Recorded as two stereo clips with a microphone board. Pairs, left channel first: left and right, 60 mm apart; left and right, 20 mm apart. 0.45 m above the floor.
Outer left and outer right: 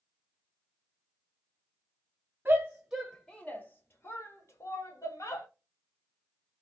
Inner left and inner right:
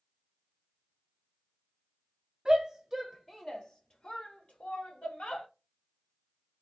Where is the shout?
30° right (ahead or behind), 0.9 m; by 5.5 s 65° left (ahead or behind), 2 m.